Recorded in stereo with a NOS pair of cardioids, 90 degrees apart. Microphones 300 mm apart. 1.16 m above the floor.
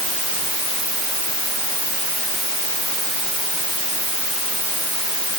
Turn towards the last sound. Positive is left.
No sound to turn to.